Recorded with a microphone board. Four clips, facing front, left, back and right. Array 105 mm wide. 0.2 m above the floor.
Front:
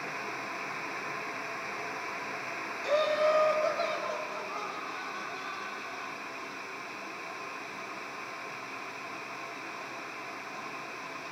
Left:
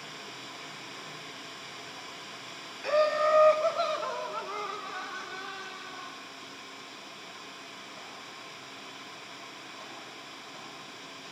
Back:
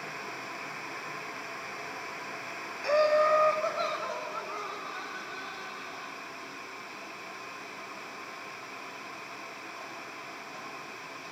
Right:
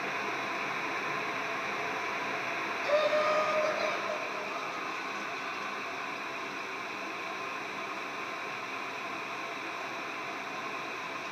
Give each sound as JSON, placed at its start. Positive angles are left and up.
{"t": 2.8, "sound": "laughter", "azimuth_deg": 165, "distance_m": 1.0}